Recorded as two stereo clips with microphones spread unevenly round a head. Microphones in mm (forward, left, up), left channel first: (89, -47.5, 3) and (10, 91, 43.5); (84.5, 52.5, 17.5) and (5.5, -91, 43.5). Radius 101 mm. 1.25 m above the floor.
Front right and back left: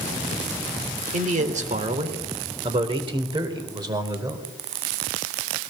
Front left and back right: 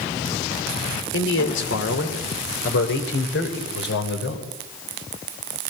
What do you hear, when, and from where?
1.1 s a man speaking: 80° left, 3.5 m; by 4.5 s 50° left, 4.5 m